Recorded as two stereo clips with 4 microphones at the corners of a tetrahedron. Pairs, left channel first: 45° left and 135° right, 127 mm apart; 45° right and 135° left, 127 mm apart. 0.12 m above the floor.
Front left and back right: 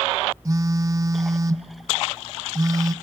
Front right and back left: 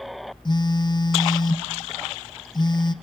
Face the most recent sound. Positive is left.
turn(degrees=-80)